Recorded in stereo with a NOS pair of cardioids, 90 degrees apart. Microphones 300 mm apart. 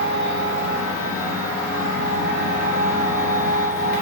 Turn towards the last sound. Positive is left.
turn(degrees=60)